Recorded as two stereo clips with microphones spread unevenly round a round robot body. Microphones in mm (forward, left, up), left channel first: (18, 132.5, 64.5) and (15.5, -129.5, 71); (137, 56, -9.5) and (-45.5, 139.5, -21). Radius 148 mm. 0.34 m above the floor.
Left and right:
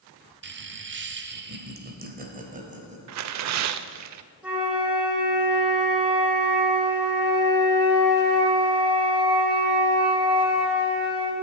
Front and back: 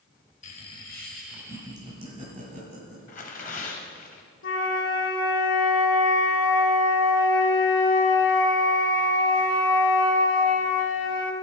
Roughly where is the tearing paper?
Right.